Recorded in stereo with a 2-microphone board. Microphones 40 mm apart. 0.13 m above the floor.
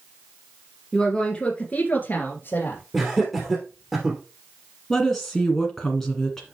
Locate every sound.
0.9 s a woman speaking: 10° left (ahead or behind), 1.7 m; by 2.8 s 60° left (ahead or behind), 2.5 m
2.9 s laughter: 5° right (ahead or behind), 2.5 m
4.9 s a woman speaking: 10° left (ahead or behind), 1.6 m